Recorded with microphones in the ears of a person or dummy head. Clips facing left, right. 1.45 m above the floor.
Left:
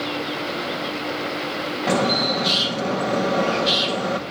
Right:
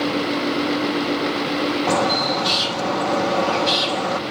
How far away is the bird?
About 2 m.